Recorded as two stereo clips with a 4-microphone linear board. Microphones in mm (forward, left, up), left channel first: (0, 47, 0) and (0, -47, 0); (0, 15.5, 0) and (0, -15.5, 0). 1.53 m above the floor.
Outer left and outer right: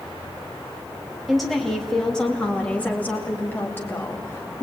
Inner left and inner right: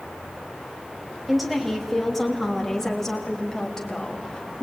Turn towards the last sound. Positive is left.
turn(degrees=30)  # may be behind; listen again after turning